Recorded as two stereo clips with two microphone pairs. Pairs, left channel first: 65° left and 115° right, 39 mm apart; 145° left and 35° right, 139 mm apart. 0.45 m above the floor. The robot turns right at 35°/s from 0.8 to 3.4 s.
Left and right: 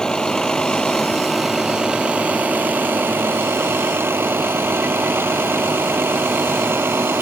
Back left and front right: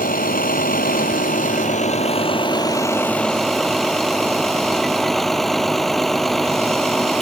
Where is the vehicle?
145° left; by 7.2 s 125° right.